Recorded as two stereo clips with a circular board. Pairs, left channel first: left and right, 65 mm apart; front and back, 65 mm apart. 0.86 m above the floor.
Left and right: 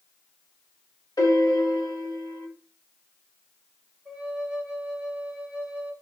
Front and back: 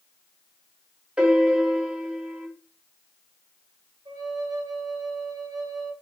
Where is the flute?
175° right, 1.0 m.